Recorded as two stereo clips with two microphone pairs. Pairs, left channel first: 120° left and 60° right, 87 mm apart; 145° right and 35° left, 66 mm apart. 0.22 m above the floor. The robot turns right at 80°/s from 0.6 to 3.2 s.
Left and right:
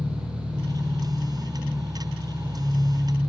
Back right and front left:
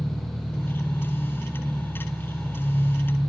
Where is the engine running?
70° right, 1.8 m; by 3.3 s 140° left, 1.8 m.